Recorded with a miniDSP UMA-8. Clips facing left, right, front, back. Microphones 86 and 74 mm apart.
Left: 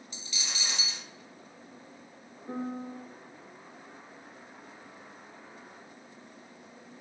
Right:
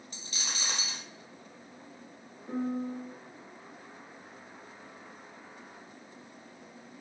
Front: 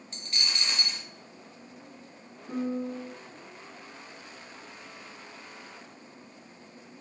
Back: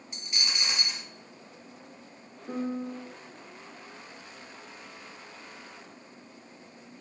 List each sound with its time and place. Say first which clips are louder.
0.1 s a dropped coin: even, even; 105° right, 0.7 m
2.5 s a piano: right 3 dB, front 1 dB; 140° left, 0.9 m